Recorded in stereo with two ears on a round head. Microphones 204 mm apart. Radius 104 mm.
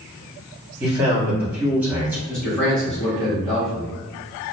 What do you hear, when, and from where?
0.8 s a man speaking: 10° right (ahead or behind), 1.4 m
2.3 s a man speaking: 5° left (ahead or behind), 1.7 m